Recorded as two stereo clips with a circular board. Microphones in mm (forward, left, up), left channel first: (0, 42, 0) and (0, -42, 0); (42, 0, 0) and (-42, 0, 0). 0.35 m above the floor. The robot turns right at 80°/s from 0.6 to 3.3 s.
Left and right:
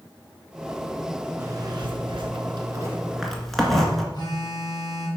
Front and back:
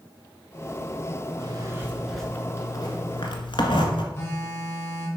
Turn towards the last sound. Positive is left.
turn(degrees=55)